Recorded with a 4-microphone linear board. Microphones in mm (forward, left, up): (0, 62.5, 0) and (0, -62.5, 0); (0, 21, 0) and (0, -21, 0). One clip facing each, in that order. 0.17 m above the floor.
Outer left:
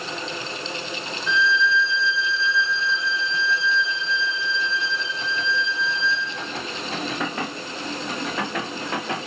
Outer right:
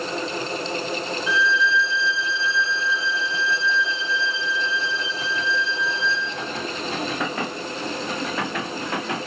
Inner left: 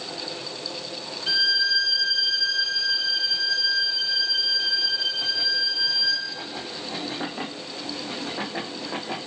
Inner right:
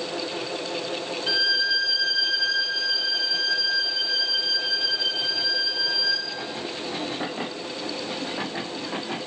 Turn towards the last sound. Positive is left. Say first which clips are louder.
# outer left 1 dB, inner left 1 dB
turn(degrees=-5)  # may be behind; listen again after turning